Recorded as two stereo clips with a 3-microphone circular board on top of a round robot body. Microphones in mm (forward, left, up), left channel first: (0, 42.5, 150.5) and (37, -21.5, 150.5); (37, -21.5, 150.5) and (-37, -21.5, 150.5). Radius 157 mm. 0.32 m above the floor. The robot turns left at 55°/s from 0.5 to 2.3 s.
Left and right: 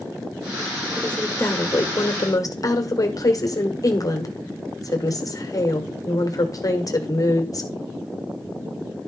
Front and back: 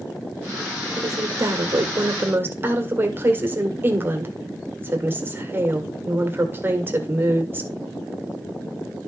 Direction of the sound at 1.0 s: 160° right.